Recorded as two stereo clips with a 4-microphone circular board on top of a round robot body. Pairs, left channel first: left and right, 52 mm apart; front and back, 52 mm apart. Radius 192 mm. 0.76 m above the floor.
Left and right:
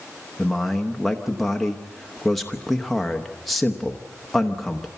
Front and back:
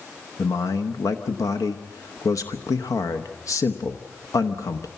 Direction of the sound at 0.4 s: Straight ahead.